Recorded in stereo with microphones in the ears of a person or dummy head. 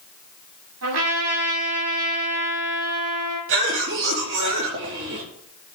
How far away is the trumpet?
About 8 m.